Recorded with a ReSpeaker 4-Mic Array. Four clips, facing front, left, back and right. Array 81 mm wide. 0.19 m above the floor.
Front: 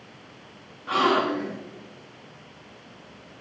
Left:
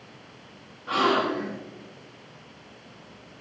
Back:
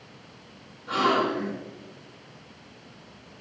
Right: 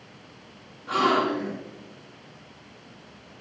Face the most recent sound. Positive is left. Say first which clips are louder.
# right 1 dB, front 2 dB
turn(degrees=30)